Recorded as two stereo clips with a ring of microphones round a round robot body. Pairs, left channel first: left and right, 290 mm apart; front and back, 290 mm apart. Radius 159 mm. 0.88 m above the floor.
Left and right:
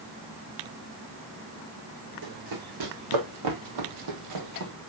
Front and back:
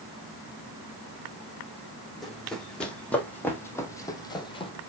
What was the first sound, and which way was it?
Running footsteps, 90° right.